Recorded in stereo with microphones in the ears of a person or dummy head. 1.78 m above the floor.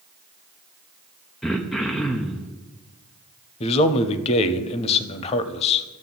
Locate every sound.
1.4 s throat clearing: 5° left (ahead or behind), 0.7 m
3.6 s a man speaking: 30° left (ahead or behind), 0.7 m